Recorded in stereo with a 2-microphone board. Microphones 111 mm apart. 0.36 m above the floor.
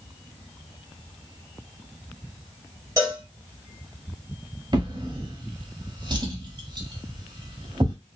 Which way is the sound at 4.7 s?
40° right (ahead or behind).